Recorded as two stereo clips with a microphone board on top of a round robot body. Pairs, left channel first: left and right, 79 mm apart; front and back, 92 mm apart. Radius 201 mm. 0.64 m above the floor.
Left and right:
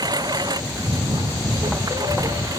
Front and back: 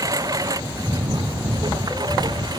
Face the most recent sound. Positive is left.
turn(degrees=-135)